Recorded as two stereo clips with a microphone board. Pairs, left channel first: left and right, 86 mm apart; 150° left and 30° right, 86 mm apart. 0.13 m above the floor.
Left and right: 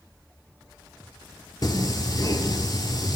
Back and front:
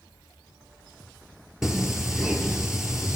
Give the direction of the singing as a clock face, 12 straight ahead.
10 o'clock.